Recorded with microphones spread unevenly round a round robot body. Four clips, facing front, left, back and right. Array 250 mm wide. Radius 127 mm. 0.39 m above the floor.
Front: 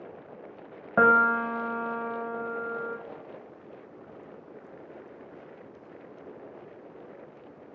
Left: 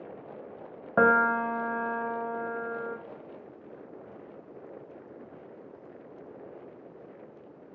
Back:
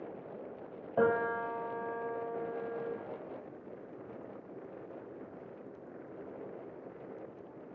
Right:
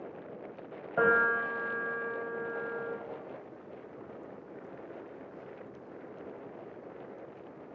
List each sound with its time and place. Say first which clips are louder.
1.0 s a piano: left 4 dB, front 8 dB; 35° left, 0.7 m